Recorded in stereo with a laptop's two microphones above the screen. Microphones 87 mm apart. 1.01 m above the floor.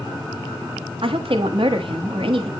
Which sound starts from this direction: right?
A woman speaking, at 1.0 s.